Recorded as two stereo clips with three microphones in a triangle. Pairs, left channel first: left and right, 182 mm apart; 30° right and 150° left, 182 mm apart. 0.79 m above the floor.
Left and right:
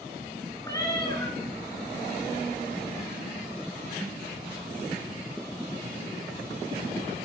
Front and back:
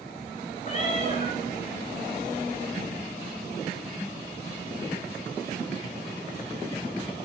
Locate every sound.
0.6 s a cat meowing: 20° left, 3.5 m